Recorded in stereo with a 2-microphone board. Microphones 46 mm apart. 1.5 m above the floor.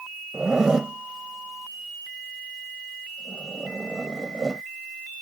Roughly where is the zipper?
Centre.